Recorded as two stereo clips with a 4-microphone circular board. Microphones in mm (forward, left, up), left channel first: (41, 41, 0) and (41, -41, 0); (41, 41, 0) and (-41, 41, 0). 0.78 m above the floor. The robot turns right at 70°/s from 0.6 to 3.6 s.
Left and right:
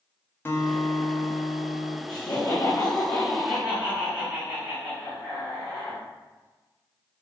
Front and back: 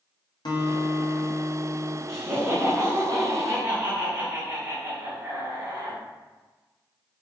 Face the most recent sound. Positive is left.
turn(degrees=-160)